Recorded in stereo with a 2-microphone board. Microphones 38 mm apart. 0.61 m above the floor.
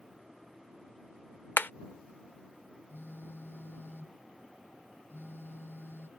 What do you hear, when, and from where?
1.6 s hammering: 60° left (ahead or behind)
2.9 s a phone buzzing: 75° left (ahead or behind)